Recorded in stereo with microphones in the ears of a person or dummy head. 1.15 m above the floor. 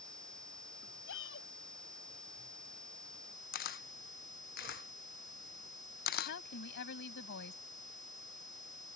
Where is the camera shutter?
45° left (ahead or behind).